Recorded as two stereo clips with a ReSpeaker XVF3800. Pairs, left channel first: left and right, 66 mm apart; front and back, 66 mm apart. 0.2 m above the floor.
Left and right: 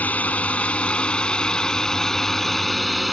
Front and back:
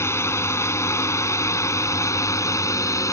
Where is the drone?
30° left; by 3.1 s straight ahead.